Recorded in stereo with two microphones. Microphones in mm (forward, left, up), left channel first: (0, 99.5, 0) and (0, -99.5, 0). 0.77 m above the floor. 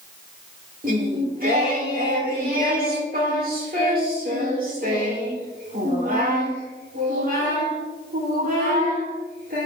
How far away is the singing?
About 2.5 m.